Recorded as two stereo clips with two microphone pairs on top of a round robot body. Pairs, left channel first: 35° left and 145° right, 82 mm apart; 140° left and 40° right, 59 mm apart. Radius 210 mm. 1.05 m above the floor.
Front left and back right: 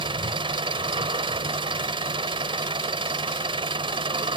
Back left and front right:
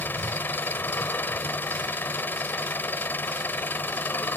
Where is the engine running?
160° right.